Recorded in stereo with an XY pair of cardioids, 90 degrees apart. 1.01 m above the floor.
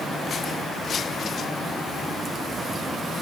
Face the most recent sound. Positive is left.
No sound to turn to.